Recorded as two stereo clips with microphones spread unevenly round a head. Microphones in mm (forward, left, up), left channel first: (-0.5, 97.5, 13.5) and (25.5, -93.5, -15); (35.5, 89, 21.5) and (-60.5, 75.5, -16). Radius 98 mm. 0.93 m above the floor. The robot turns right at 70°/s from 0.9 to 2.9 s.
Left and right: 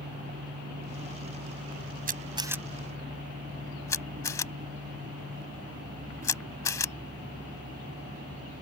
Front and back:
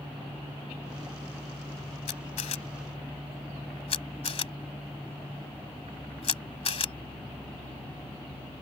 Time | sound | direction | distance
2.1 | a camera shutter | 35° right | ?